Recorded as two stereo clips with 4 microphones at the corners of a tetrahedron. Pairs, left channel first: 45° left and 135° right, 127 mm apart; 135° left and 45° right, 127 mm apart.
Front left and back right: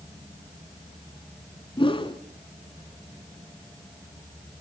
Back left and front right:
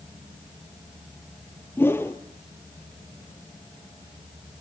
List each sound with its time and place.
1.8 s a whoosh: 70° left, 1.1 m